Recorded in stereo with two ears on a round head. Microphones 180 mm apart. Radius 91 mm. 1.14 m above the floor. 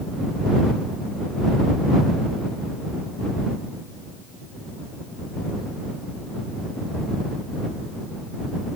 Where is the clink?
I don't hear a clink.